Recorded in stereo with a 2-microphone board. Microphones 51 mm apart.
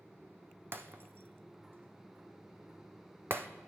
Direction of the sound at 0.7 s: 45° right (ahead or behind).